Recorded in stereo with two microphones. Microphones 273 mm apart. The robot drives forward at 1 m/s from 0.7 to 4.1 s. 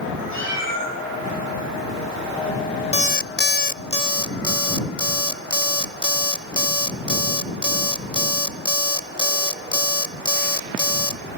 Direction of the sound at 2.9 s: 20° left (ahead or behind).